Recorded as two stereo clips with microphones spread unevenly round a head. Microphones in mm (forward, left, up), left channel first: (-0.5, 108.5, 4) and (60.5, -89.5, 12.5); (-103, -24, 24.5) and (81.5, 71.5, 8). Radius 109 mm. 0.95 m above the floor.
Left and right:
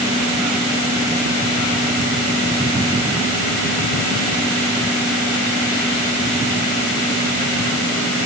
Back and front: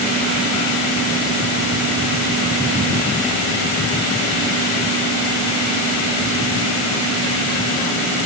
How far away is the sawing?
I don't hear sawing.